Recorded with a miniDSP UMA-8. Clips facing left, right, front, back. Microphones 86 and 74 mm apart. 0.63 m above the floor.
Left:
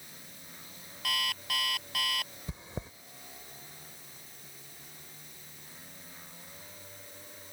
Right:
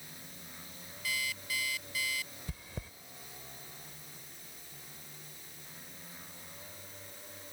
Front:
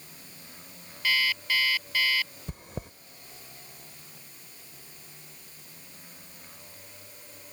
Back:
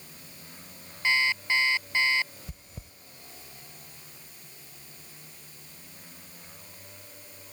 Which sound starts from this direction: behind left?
An alarm clock, at 1.0 s.